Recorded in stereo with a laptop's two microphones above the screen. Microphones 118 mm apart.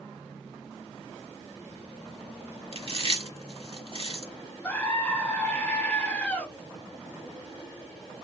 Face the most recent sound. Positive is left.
turn(degrees=15)  # may be behind; listen again after turning